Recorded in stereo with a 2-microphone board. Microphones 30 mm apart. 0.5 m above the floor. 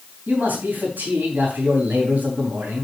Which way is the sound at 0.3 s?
65° right (ahead or behind).